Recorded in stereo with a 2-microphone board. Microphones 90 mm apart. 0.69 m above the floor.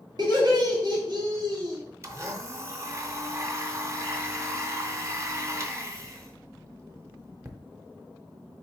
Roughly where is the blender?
Right.